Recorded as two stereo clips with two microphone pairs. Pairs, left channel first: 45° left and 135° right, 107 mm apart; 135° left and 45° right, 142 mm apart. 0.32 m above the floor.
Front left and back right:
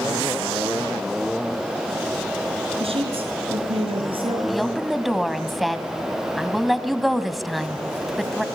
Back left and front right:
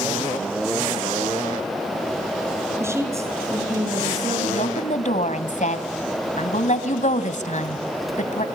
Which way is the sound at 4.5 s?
135° left.